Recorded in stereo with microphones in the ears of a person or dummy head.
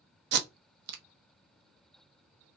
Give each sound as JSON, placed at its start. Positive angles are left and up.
{"t": 0.3, "sound": "tape being pulled", "side_deg": -65, "distance_m": 0.7}